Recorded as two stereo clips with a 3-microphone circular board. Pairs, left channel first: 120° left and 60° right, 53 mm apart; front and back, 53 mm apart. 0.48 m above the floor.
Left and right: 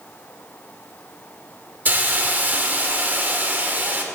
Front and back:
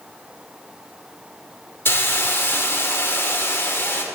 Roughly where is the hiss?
Ahead.